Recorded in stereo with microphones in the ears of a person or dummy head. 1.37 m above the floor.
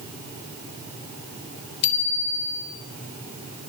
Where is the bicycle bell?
65° left (ahead or behind), 3.5 m.